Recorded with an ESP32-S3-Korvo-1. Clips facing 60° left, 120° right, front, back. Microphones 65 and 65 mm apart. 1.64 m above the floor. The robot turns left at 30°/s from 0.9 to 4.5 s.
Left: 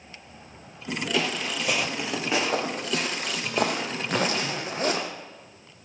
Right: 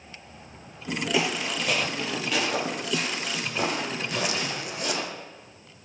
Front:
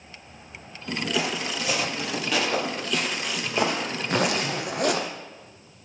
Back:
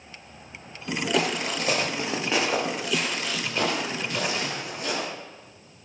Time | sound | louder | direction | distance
1.1 | footsteps | right 1 dB, back 3 dB | 170° left | 3 m
4.0 | a zipper | left 6 dB, front 4 dB | 20° left | 1.0 m